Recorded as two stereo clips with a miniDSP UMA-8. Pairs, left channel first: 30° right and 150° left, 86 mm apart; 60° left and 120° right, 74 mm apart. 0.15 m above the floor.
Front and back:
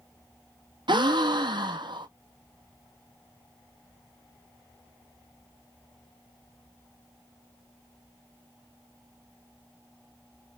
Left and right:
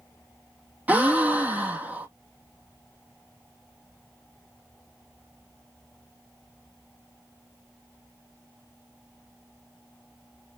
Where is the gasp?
170° left, 1.5 m.